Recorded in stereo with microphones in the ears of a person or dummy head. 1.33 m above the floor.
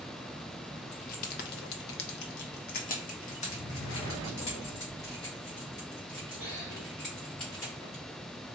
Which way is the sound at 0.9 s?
40° left (ahead or behind).